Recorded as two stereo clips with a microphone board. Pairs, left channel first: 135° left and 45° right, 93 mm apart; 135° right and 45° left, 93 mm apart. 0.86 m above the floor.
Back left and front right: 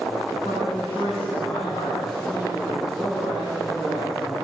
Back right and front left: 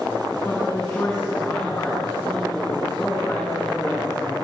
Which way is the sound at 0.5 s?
165° left.